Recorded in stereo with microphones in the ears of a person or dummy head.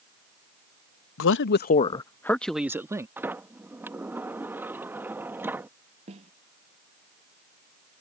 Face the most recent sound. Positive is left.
turn(degrees=-35)  # may be behind; listen again after turning